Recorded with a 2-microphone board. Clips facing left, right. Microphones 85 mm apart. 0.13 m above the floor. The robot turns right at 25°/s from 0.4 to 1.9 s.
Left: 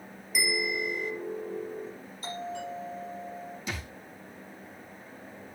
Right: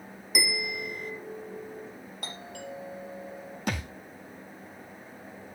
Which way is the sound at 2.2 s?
55° right (ahead or behind).